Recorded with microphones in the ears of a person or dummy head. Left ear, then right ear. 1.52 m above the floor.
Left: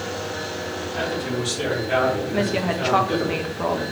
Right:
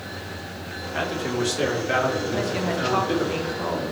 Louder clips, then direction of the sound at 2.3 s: Left 2 dB; 15° left (ahead or behind).